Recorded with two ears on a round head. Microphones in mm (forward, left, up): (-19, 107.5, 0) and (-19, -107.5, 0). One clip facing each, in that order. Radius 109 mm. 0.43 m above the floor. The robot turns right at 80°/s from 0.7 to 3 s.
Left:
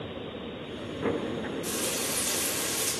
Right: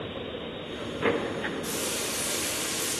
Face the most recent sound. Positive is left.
turn(degrees=120)